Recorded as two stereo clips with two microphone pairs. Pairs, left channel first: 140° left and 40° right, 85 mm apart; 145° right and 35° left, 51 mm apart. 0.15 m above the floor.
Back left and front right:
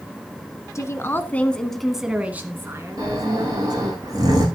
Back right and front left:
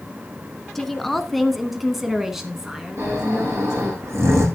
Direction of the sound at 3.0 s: 5° left.